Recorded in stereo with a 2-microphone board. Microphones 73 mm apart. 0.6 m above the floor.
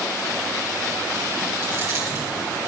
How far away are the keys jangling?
About 6.5 m.